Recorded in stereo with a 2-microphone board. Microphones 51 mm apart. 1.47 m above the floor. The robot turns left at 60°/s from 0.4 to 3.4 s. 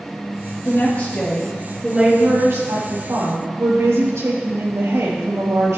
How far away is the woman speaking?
About 3.5 m.